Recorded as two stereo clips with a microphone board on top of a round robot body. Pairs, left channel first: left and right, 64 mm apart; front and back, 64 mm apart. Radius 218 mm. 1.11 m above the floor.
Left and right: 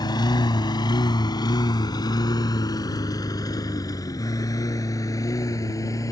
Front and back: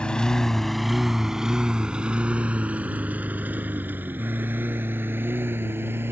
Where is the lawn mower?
75° left; by 6.1 s 125° left.